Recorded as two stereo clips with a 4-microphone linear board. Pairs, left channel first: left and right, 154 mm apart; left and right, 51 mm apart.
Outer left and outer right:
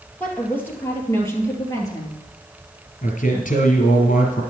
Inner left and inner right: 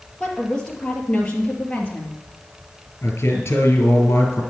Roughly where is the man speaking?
Left.